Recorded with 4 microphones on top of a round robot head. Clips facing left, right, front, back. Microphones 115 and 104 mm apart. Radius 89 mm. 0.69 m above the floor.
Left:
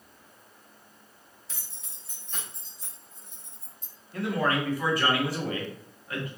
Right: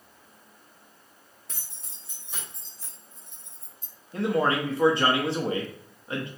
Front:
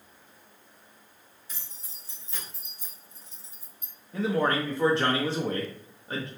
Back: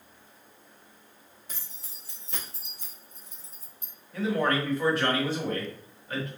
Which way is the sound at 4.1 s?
45° right.